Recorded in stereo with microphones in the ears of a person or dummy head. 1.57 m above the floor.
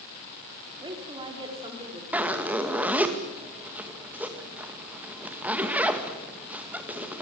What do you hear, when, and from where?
0.8 s a woman speaking: 25° right (ahead or behind), 4.5 m; by 2.0 s 20° right (ahead or behind), 6 m
2.1 s a zipper: 5° right (ahead or behind), 2.0 m